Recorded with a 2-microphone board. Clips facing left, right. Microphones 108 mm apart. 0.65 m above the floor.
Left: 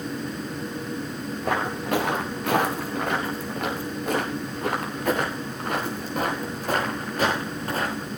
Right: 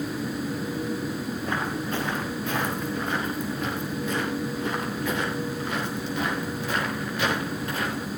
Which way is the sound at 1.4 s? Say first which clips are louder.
Left 5 dB; 75° left (ahead or behind).